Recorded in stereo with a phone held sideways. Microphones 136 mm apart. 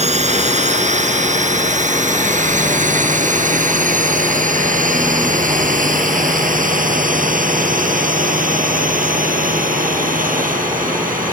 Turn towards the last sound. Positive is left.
turn(degrees=-85)